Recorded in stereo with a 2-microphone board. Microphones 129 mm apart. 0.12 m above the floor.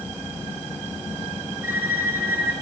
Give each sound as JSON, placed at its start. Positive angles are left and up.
{"t": 1.6, "sound": "a violin", "side_deg": -15, "distance_m": 1.7}